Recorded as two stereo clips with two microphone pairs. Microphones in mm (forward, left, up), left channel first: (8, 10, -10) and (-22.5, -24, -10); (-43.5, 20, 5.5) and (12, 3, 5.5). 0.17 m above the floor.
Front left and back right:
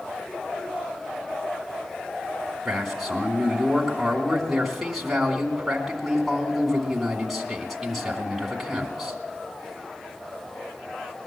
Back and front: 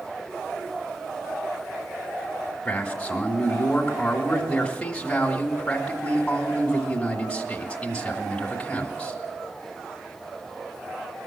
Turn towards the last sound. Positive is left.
turn(degrees=140)